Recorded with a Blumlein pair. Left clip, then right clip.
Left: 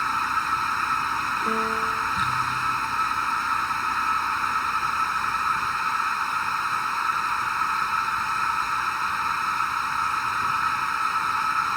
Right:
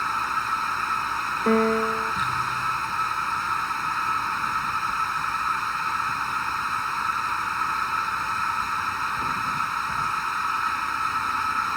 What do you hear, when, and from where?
0.0 s a machine running: 5° left
1.5 s a piano: 60° right